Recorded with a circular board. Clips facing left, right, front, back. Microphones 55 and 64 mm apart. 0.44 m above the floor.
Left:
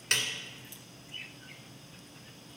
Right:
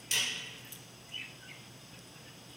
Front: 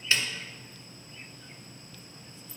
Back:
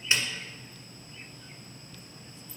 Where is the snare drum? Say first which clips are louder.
Left 3 dB, even; 110° left, 1.3 m.